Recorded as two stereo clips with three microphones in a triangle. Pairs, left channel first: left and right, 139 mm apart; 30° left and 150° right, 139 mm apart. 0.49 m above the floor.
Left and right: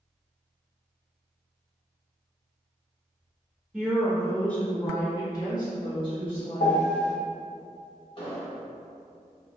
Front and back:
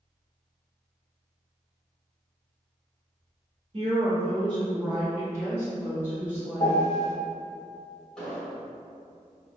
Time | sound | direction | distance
3.7 | a woman speaking | 170° right | 1.4 m
6.6 | a piano | 85° left | 1.4 m
8.2 | an explosion | 115° left | 1.2 m